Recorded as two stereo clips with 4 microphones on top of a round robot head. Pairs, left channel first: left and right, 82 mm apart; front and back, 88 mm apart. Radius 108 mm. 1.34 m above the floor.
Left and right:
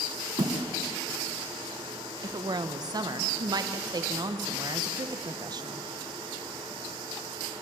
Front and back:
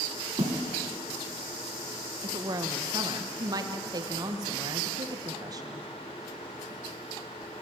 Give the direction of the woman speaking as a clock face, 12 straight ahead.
4 o'clock.